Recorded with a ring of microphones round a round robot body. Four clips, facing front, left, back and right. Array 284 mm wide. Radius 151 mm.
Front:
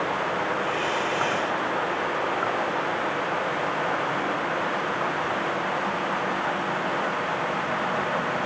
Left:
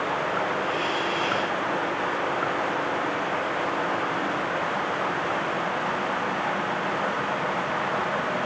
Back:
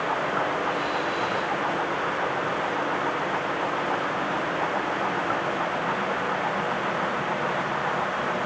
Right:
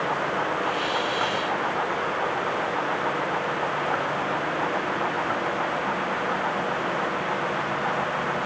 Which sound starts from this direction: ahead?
A hiss, at 0.6 s.